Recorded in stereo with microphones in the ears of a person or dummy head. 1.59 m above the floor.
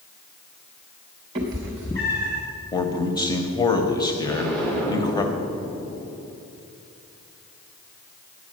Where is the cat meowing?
20° right (ahead or behind), 0.9 m; by 2.4 s 30° left (ahead or behind), 1.0 m.